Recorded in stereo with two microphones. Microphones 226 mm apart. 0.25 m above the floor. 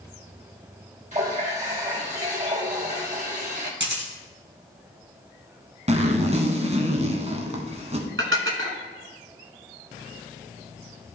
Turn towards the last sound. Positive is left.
turn(degrees=-65)  # may be behind; listen again after turning